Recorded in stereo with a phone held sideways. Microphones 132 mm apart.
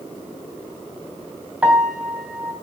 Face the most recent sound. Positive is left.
turn(degrees=-10)  # may be behind; listen again after turning